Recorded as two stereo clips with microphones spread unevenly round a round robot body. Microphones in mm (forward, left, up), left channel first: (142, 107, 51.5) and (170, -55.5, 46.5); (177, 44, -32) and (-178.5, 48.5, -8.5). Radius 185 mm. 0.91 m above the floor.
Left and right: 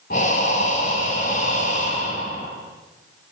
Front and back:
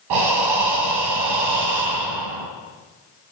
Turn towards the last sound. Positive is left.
turn(degrees=165)